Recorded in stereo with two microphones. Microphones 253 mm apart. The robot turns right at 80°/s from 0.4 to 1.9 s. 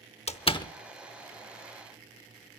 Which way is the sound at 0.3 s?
25° left (ahead or behind).